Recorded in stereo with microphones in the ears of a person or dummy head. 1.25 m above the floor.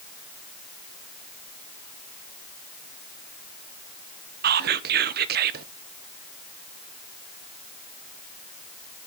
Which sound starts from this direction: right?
Whispering, at 4.4 s.